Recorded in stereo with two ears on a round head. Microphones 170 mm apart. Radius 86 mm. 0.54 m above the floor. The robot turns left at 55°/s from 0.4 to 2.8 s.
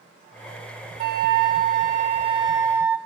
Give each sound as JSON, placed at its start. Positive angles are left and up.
{"t": 1.0, "sound": "a flute", "azimuth_deg": -70, "distance_m": 0.5}